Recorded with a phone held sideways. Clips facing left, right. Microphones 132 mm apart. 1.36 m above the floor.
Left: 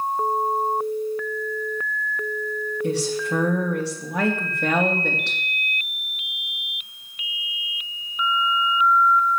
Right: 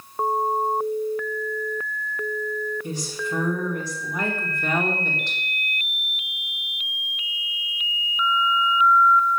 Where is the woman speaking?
80° left, 3 m.